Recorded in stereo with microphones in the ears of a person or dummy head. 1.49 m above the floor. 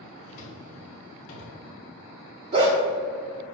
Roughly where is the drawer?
Left.